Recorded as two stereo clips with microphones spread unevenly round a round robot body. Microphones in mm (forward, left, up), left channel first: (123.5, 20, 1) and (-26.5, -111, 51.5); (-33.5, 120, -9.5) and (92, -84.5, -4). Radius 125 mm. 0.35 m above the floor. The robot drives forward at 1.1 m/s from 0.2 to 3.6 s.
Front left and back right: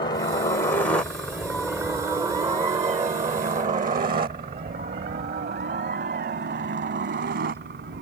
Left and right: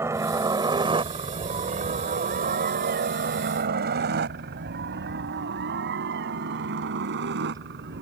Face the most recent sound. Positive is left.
turn(degrees=-105)